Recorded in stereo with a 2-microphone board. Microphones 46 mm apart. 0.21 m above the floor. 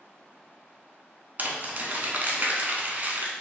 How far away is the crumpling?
About 0.6 m.